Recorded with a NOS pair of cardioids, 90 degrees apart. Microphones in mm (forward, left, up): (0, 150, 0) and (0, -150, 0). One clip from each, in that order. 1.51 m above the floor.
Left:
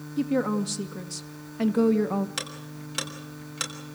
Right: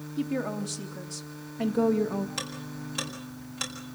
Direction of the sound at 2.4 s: 50° left.